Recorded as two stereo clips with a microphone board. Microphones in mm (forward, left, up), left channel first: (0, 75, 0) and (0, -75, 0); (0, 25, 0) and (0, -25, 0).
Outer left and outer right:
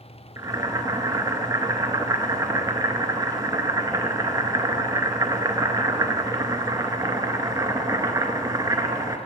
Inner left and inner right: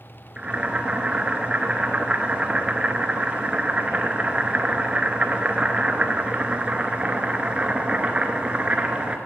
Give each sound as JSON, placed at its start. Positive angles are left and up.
{"t": 0.4, "sound": "boiling", "side_deg": -25, "distance_m": 0.6}